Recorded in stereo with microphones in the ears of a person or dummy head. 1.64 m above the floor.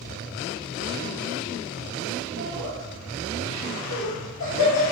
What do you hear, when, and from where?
2.4 s laughter: 85° left, 2 m